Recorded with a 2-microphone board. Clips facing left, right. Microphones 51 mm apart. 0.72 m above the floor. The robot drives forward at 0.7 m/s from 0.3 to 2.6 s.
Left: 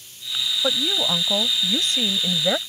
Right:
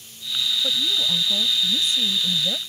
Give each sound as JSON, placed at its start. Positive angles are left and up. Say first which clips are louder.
{"t": 0.6, "sound": "a woman speaking", "louder": "left 5 dB", "side_deg": 55}